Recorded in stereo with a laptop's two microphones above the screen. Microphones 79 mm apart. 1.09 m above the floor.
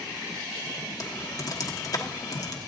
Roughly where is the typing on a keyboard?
Left.